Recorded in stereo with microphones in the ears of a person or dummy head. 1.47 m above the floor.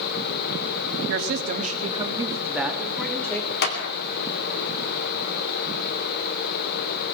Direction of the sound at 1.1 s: 70° right (ahead or behind).